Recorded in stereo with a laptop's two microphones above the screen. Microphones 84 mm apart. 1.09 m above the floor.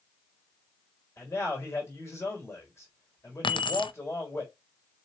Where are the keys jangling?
70° left (ahead or behind), 0.6 m.